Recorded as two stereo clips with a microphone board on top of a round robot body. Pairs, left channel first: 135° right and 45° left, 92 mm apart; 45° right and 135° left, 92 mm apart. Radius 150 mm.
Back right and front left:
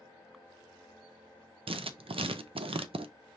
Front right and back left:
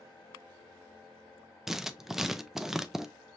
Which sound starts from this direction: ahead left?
Writing, at 1.7 s.